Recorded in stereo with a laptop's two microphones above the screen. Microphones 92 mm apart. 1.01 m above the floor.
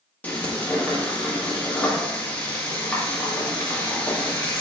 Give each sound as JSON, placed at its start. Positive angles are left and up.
{"t": 0.2, "sound": "frying", "side_deg": 20, "distance_m": 1.4}